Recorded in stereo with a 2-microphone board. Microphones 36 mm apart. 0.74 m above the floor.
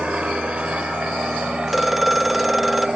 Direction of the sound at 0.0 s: 35° right (ahead or behind).